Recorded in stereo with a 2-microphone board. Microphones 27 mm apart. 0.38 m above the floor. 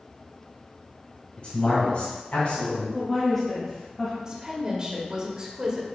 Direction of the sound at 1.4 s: 45° left (ahead or behind).